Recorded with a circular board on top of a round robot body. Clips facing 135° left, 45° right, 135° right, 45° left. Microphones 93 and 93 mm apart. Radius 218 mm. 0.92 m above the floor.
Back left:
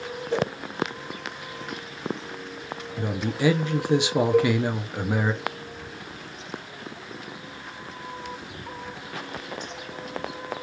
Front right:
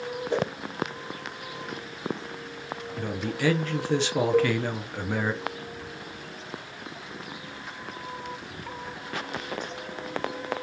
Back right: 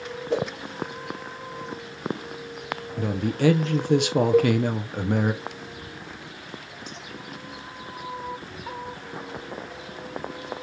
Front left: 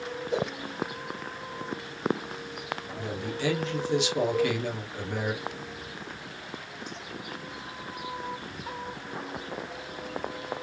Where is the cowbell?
130° right, 0.9 m.